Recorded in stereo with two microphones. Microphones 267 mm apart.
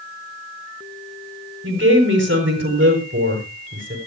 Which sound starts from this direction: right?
A woman speaking, at 1.6 s.